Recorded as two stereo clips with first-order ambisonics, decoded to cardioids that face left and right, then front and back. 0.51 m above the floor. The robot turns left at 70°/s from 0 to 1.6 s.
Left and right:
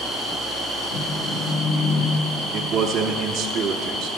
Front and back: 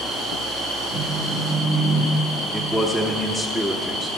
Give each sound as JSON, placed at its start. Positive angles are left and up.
{"t": 0.9, "sound": "a phone buzzing", "azimuth_deg": 100, "distance_m": 4.5}
{"t": 2.5, "sound": "a man speaking", "azimuth_deg": -105, "distance_m": 0.8}